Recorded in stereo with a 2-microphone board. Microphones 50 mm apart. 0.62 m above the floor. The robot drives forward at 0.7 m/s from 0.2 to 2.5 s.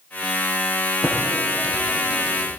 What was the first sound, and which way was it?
Typing on a keyboard, 85° left.